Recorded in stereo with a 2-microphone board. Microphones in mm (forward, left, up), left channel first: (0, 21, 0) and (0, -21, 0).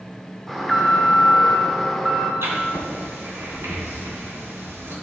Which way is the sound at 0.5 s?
5° left (ahead or behind).